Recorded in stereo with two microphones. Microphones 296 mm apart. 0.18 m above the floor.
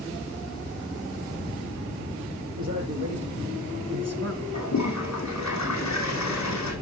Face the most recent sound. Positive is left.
turn(degrees=65)  # may be behind; listen again after turning